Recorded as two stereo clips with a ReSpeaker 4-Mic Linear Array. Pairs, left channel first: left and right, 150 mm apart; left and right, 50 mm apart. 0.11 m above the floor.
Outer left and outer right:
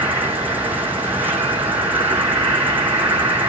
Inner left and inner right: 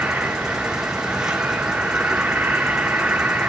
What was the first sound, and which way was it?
An insect, 10° right (ahead or behind).